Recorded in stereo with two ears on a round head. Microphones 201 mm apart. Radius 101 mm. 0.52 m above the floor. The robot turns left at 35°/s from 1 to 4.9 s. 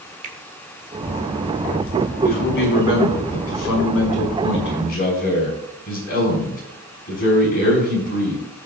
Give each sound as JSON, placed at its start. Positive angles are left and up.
{"t": 0.2, "sound": "a finger snap", "side_deg": -35, "distance_m": 1.2}
{"t": 2.2, "sound": "a man speaking", "azimuth_deg": 135, "distance_m": 5.5}